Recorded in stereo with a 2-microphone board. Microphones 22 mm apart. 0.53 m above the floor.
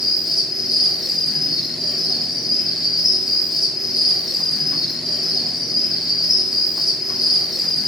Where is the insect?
25° right (ahead or behind), 3.5 m.